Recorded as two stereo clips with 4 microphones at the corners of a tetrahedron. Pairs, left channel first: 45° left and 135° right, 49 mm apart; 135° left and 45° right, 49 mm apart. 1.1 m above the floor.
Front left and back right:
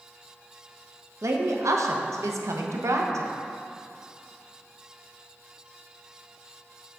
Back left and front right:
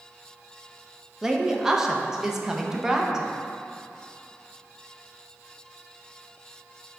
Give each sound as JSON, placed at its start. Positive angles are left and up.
{"t": 1.2, "sound": "a woman speaking", "azimuth_deg": -125, "distance_m": 0.6}